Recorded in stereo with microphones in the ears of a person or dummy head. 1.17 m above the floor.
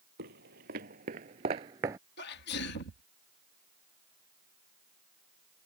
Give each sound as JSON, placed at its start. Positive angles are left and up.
{"t": 0.2, "sound": "footsteps", "side_deg": -50}
{"t": 2.2, "sound": "a sneeze", "side_deg": 55}